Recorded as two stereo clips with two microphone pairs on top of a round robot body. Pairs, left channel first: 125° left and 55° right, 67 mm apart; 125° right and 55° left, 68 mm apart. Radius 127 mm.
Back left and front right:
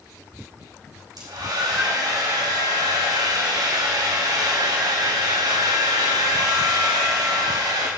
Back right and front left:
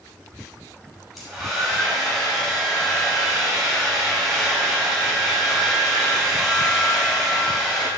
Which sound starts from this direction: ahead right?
A hair dryer, at 1.2 s.